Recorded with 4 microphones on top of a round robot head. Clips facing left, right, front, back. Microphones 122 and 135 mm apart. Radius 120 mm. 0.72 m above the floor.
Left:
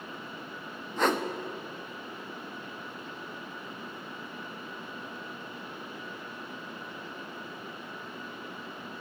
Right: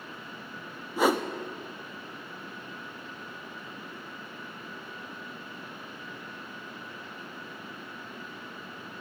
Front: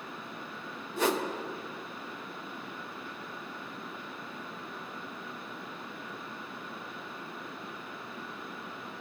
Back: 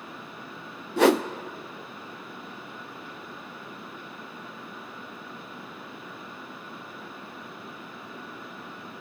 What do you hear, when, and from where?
1.0 s a whoosh: 170° right, 0.7 m